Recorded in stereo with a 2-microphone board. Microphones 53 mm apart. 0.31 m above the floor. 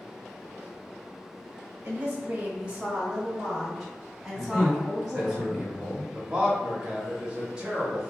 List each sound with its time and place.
1.8 s a woman speaking: 30° right (ahead or behind), 1.2 m; by 5.3 s 10° left (ahead or behind), 2 m
4.3 s a man speaking: centre (ahead or behind), 2.0 m
6.1 s a man speaking: 20° right (ahead or behind), 0.9 m